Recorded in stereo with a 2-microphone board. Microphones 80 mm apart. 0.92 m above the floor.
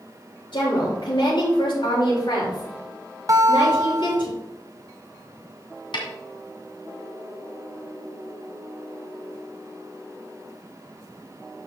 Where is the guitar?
45° right (ahead or behind), 0.5 m.